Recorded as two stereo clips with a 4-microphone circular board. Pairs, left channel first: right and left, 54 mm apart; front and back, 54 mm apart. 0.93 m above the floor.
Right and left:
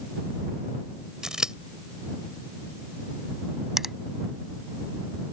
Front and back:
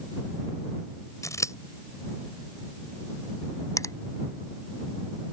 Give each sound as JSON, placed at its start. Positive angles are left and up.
{"t": 1.2, "sound": "scissors", "azimuth_deg": 10}
{"t": 3.8, "sound": "a finger snap", "azimuth_deg": 5}